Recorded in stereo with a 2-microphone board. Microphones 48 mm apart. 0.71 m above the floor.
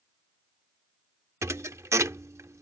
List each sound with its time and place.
1.4 s a thud: 80° right